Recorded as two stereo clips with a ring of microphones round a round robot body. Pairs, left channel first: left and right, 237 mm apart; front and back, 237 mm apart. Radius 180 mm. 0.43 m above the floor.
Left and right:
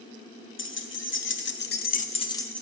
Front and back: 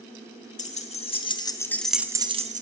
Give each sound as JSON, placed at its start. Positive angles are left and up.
{"t": 0.6, "sound": "keys jangling", "azimuth_deg": 60, "distance_m": 1.3}